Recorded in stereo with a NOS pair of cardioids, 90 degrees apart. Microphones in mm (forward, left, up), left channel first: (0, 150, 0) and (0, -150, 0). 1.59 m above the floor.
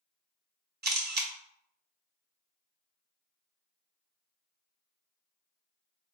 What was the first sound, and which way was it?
A camera shutter, 35° right.